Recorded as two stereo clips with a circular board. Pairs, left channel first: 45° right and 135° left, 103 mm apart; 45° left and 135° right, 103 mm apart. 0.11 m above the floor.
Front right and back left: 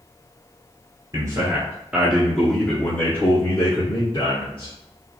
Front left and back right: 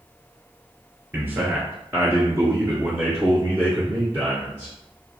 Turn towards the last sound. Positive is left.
turn(degrees=-65)